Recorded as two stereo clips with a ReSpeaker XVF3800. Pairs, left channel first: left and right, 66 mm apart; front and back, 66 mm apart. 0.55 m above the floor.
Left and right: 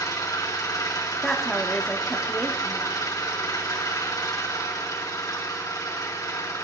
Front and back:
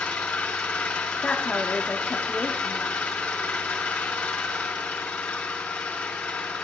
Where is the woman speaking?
15° left, 0.7 m.